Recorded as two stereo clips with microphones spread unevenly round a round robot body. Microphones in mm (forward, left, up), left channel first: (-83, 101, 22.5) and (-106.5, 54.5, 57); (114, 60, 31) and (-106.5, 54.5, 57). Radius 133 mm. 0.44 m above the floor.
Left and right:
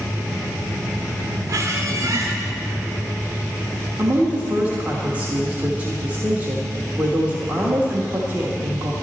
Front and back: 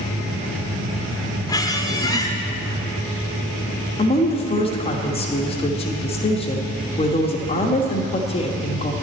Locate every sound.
1.5 s a squeak: 60° right, 1.0 m
4.0 s a woman speaking: 10° right, 1.1 m